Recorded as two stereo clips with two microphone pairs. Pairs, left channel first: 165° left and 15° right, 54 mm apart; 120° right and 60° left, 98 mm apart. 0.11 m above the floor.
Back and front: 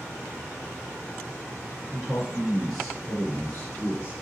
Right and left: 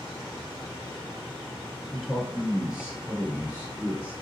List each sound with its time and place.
1.9 s a man speaking: 20° right, 1.3 m; by 4.1 s 125° left, 1.5 m